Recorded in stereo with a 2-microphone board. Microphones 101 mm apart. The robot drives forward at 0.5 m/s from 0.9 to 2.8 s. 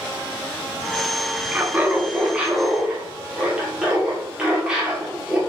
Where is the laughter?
15° right (ahead or behind), 0.5 m; by 5.4 s 10° right (ahead or behind), 0.7 m.